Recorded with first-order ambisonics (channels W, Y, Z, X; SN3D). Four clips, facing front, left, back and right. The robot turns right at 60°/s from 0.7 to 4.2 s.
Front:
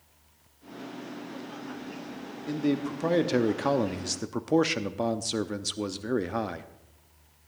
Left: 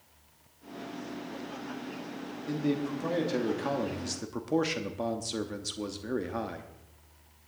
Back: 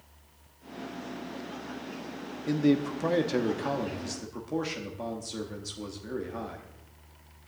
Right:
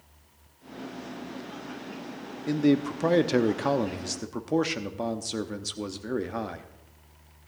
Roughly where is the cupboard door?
I don't hear a cupboard door.